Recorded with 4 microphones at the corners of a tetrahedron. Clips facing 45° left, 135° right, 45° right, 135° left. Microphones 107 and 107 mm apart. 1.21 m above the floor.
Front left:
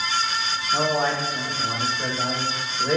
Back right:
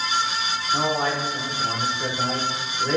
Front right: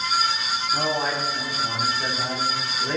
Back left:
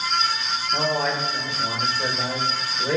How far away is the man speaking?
About 3.5 m.